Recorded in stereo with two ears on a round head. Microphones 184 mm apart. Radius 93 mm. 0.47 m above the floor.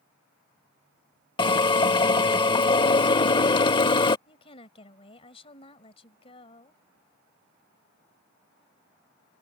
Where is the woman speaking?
25° left (ahead or behind).